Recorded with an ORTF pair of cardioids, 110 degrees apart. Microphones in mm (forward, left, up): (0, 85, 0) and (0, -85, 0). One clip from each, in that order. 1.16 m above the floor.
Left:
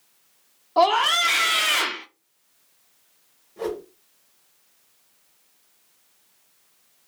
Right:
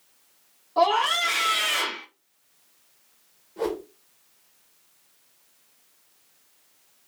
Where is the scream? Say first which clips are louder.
Left 3 dB; 25° left, 0.7 m.